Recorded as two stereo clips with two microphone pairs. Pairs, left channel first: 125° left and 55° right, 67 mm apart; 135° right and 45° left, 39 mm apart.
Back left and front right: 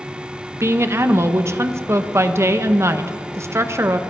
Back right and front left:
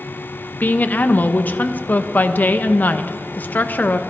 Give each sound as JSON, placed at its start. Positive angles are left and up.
{"t": 0.6, "sound": "a woman speaking", "azimuth_deg": -100, "distance_m": 0.7}